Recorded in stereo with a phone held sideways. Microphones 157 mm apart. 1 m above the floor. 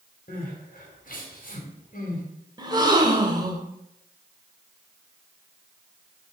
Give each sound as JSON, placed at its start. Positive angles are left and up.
{"t": 0.3, "sound": "crying", "side_deg": 65, "distance_m": 4.0}
{"t": 2.6, "sound": "a gasp", "side_deg": -25, "distance_m": 1.7}